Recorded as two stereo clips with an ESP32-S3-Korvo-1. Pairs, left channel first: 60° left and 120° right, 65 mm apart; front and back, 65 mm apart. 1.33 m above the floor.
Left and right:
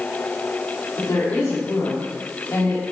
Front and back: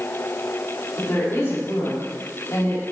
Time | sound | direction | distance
1.0 | a woman speaking | 55° left | 3.5 m